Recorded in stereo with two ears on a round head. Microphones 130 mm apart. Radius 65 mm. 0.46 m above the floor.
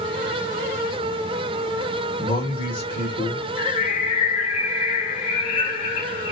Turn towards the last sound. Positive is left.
turn(degrees=45)  # may be behind; listen again after turning